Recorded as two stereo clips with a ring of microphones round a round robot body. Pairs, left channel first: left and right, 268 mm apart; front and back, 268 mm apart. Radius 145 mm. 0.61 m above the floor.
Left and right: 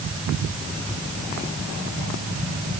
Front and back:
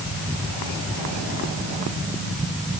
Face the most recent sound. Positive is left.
No sound to turn to.